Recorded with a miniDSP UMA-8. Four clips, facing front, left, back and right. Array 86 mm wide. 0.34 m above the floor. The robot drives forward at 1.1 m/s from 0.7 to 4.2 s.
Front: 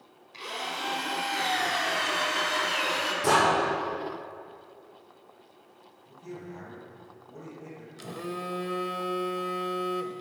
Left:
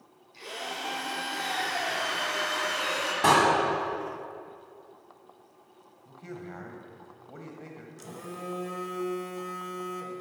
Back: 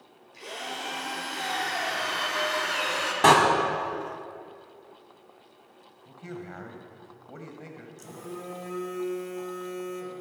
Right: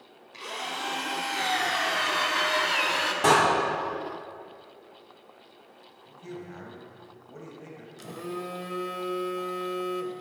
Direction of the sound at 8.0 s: 20° right.